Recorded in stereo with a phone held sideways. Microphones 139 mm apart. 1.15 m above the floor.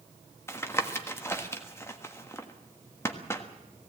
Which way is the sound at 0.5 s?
15° left (ahead or behind).